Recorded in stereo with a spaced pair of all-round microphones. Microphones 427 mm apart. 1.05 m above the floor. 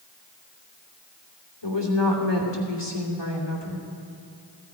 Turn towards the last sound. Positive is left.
turn(degrees=80)